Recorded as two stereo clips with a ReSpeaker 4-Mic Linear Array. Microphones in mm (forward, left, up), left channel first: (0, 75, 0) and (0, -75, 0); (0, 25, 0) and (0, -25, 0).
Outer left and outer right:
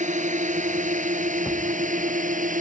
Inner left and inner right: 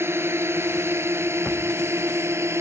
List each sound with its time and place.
0.0 s a drone: 55° right (ahead or behind); by 2.6 s 60° right (ahead or behind)